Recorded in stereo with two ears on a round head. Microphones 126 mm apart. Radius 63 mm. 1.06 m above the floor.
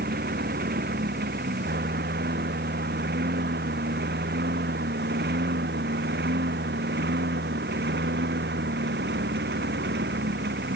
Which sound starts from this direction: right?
A lawn mower, at 0.0 s.